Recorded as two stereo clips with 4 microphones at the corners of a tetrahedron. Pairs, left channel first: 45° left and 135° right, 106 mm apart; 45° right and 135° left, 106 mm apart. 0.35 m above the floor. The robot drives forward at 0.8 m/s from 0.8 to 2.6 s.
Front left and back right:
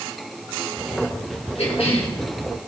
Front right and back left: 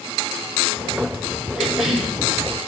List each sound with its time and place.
1.6 s a cough: 45° left, 4 m; by 2.1 s 50° left, 3.5 m